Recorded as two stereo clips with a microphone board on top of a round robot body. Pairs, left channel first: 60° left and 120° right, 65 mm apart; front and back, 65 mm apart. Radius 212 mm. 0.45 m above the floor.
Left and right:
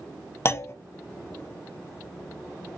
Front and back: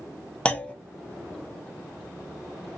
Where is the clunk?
60° left, 0.9 m.